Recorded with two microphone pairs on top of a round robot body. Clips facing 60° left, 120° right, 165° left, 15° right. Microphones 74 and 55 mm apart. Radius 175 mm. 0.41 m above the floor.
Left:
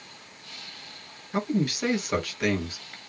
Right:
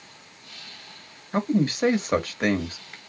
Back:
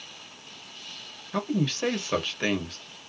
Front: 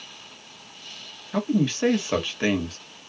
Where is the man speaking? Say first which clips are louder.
Right 3 dB, front 4 dB; 85° right, 1.4 m.